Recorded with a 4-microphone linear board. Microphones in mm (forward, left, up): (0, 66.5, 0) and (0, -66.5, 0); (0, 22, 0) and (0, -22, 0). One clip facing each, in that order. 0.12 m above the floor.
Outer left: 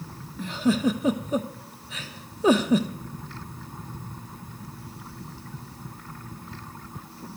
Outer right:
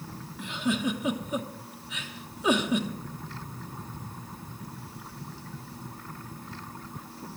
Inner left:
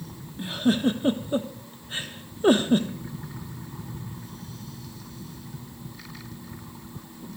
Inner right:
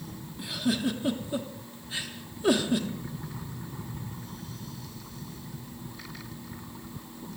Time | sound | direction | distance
0.4 | a giggle | 35° left (ahead or behind) | 0.9 m